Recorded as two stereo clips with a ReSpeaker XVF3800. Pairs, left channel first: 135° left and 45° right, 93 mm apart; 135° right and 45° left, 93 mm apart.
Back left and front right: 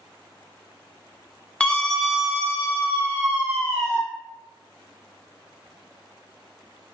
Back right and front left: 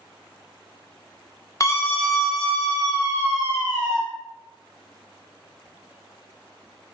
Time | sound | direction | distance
1.6 | a scream | 155° right | 0.9 m